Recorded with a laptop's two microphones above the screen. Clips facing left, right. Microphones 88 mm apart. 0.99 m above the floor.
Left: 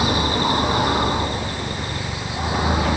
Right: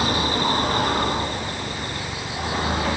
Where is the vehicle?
5° left (ahead or behind); by 3.0 s 10° left (ahead or behind).